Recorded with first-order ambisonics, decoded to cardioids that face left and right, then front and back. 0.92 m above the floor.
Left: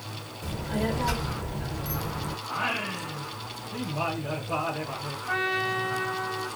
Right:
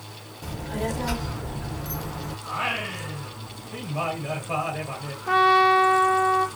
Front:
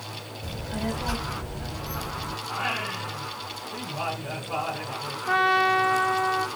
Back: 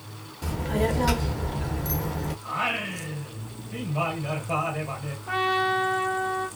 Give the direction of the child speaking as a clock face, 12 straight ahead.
6 o'clock.